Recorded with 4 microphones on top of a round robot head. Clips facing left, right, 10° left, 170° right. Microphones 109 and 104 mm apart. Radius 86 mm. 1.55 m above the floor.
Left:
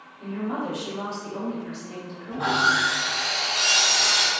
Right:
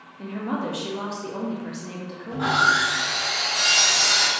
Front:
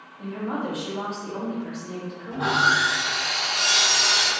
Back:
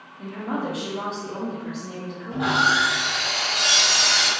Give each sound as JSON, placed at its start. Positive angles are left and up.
{"t": 0.2, "sound": "a woman speaking", "azimuth_deg": -80, "distance_m": 0.6}
{"t": 2.3, "sound": "sawing", "azimuth_deg": -105, "distance_m": 1.3}